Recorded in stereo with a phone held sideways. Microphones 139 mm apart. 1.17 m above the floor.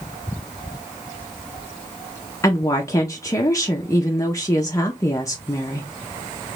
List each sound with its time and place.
2.4 s a woman speaking: 25° left (ahead or behind), 0.6 m